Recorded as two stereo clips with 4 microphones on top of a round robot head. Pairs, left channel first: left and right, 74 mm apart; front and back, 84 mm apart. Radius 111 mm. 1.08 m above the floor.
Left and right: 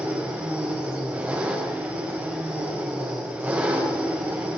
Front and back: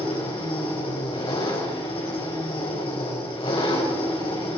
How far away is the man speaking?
No man speaking in this recording.